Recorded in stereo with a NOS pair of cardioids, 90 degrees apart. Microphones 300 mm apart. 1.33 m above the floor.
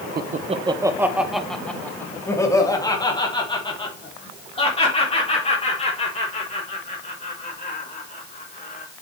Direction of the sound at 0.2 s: 35° right.